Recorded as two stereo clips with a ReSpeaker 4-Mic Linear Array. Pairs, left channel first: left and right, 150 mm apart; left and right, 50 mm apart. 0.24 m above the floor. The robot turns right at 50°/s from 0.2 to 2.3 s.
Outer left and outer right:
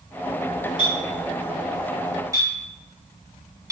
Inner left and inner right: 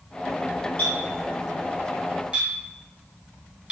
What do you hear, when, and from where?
0.8 s a clink: 35° left (ahead or behind), 1.7 m; by 3.7 s 25° right (ahead or behind), 1.7 m